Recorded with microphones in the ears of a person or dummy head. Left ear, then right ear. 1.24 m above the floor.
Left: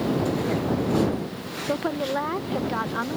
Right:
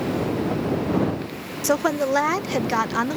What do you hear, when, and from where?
1.6 s a woman speaking: 45° right (ahead or behind); by 3.2 s 70° right (ahead or behind)